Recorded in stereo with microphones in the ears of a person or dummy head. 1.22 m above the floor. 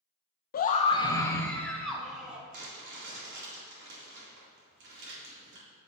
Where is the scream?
45° left (ahead or behind), 0.6 m; by 2.4 s 5° right (ahead or behind), 1.4 m.